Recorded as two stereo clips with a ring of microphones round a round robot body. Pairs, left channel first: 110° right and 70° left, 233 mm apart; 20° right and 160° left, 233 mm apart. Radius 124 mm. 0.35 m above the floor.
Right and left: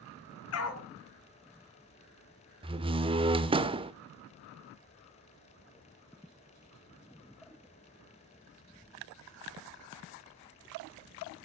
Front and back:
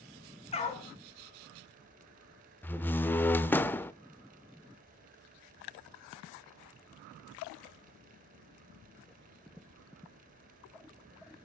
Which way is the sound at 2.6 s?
45° left.